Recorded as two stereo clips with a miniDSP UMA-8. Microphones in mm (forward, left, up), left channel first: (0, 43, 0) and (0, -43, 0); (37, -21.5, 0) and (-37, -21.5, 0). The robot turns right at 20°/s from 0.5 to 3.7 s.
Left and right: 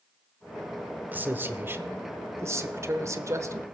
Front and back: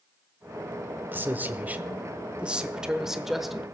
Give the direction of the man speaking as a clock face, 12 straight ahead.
5 o'clock.